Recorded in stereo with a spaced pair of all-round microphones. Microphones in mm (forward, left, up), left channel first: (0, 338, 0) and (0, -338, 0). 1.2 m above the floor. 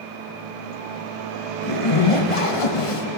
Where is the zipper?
50° left (ahead or behind), 1.0 m.